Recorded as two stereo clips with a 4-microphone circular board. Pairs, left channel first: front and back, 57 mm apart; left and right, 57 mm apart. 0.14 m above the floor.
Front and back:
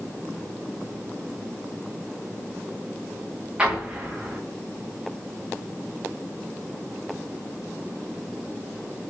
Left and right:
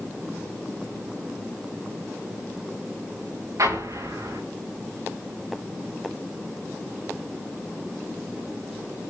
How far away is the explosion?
About 8.5 m.